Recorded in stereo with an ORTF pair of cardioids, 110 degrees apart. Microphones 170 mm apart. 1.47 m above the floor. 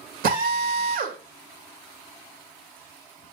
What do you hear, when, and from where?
0.2 s a drill: 60° right, 2 m